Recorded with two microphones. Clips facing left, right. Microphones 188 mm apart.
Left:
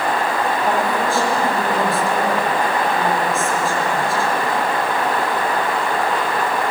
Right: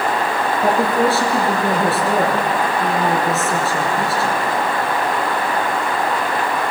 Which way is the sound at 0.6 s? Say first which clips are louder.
Right 7 dB; 75° right (ahead or behind).